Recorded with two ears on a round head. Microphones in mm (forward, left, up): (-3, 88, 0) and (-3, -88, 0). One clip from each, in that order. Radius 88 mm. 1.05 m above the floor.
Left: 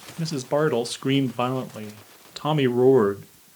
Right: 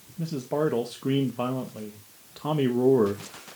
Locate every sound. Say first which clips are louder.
0.2 s a man speaking: left 4 dB; 55° left (ahead or behind), 0.6 m